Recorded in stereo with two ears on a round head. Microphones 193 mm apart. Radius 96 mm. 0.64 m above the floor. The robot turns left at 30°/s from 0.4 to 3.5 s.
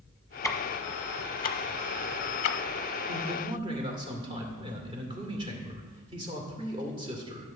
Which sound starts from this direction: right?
A man speaking, at 3.1 s.